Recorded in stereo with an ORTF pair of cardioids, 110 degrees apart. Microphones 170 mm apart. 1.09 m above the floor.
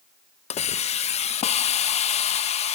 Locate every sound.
0.5 s a hiss: 40° left, 0.6 m